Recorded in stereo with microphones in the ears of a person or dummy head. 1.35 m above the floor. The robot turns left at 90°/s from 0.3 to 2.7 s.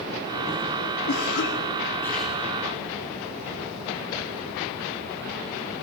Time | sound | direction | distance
1.1 | a cough | 105° left | 2.5 m